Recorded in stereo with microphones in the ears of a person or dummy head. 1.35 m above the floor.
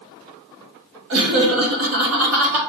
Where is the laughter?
70° right (ahead or behind), 1.1 m; by 2.6 s 65° right (ahead or behind), 1.4 m.